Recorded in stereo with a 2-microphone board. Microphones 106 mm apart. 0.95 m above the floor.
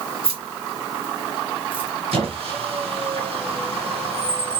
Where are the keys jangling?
65° right (ahead or behind), 1.6 m; by 1.9 s 10° right (ahead or behind), 1.1 m.